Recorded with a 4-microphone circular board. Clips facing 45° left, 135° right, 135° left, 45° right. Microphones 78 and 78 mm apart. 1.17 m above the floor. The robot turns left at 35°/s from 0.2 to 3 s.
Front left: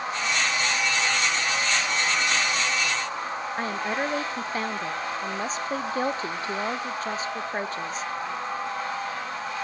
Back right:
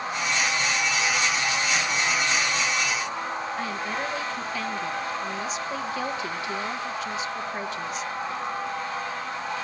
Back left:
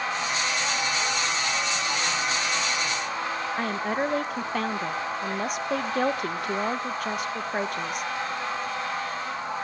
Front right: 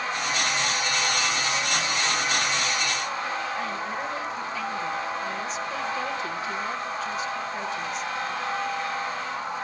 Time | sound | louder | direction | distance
3.6 | a woman speaking | front left 2 dB, back left 3 dB | 100° left | 0.8 m